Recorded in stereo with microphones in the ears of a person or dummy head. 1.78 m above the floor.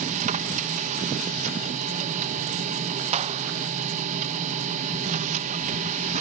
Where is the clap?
35° right (ahead or behind), 0.8 m.